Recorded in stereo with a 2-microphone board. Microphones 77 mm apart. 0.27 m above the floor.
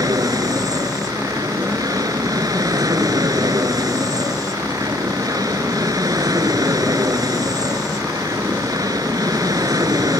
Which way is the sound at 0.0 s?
55° right (ahead or behind).